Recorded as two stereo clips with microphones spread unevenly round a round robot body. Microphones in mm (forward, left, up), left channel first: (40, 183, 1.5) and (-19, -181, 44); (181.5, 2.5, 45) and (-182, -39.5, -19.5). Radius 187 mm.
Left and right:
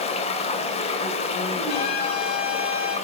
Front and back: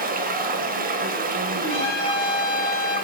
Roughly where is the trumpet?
Ahead left.